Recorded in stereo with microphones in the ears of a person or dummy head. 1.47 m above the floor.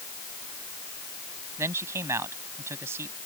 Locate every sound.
1.6 s a man speaking: 15° right (ahead or behind)